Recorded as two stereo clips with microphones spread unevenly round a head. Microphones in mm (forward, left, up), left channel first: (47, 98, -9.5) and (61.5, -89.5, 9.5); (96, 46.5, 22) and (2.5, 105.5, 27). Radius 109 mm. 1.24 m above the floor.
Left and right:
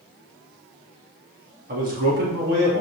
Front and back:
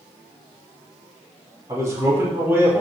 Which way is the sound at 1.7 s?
140° right.